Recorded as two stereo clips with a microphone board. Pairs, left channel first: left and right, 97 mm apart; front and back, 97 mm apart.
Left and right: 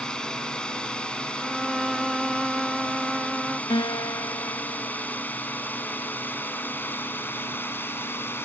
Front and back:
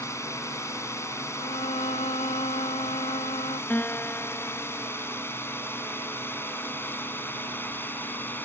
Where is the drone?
15° left; by 8.5 s 45° left.